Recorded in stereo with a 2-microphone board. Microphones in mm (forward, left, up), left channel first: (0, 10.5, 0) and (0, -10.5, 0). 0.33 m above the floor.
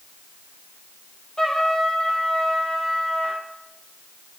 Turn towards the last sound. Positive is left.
turn(degrees=20)  # may be behind; listen again after turning